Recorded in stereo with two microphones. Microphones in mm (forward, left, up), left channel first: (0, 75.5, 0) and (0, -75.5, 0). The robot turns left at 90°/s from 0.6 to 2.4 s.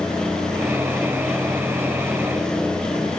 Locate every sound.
Only background noise.